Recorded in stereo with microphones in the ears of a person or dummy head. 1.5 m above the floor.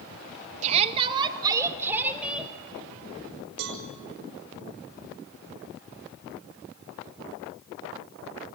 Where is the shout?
35° right (ahead or behind), 2 m; by 2.5 s centre (ahead or behind), 3.5 m.